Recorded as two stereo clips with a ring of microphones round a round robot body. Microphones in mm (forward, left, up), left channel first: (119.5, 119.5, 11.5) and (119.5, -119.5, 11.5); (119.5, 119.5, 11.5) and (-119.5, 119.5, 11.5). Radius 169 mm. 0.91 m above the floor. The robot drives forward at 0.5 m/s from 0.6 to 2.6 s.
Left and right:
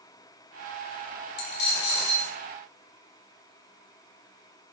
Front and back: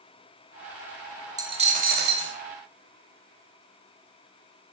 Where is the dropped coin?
105° left, 0.6 m; by 2.4 s 140° left, 0.8 m.